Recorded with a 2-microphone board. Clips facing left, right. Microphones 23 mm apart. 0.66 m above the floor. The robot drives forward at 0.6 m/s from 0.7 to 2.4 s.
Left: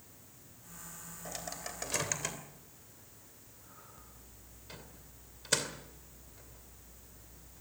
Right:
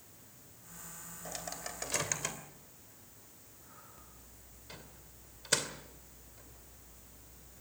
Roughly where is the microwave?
Centre.